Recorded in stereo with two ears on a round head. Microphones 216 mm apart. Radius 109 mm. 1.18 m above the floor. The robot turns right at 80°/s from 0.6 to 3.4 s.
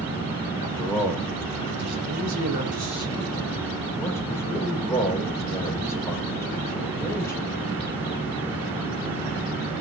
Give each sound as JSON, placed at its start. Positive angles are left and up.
{"t": 0.6, "sound": "a man speaking", "side_deg": 30, "distance_m": 4.5}